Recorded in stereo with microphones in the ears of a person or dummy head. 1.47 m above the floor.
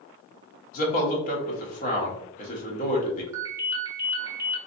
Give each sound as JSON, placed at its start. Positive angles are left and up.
{"t": 0.7, "sound": "a man speaking", "side_deg": 45, "distance_m": 1.1}
{"t": 3.3, "sound": "a ringtone", "side_deg": -20, "distance_m": 0.7}